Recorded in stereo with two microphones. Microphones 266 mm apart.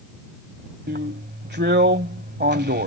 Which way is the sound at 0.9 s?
40° right (ahead or behind).